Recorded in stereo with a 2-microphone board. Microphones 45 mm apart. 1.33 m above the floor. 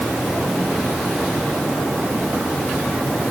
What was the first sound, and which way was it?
Only background noise.